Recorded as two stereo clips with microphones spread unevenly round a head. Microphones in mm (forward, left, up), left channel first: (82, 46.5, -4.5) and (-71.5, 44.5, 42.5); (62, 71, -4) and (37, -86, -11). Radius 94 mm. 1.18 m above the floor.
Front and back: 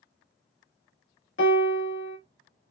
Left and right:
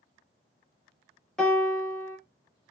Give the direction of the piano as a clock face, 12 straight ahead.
12 o'clock.